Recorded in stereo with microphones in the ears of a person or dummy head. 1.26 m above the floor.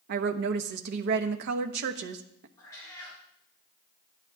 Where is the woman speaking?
65° right (ahead or behind), 1.1 m.